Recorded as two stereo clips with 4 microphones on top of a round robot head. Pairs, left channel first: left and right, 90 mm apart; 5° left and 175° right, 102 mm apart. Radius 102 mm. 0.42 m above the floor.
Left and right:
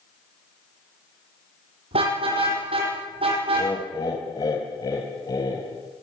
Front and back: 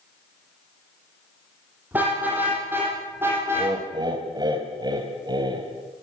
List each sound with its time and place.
1.9 s a car horn: 100° right, 9.5 m; by 3.7 s 110° right, 9 m
3.5 s laughter: 140° left, 3 m